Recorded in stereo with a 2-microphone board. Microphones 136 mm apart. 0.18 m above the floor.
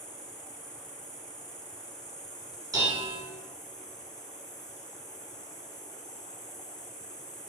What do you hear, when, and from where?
0.0 s an insect: 30° left (ahead or behind), 1.0 m
2.7 s dishes clattering: 25° right (ahead or behind), 1.1 m